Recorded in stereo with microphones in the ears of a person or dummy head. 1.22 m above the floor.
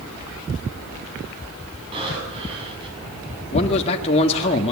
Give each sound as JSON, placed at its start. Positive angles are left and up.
{"t": 1.9, "sound": "breathing", "side_deg": -30, "distance_m": 7.0}
{"t": 3.5, "sound": "a man speaking", "side_deg": 35, "distance_m": 1.8}